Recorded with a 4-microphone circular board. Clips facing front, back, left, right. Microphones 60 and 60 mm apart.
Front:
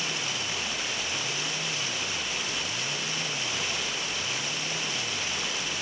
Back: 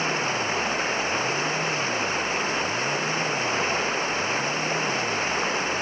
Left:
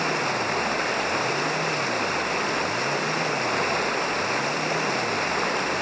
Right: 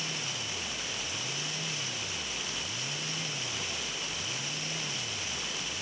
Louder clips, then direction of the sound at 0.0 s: Back 8 dB, left 14 dB; 125° left.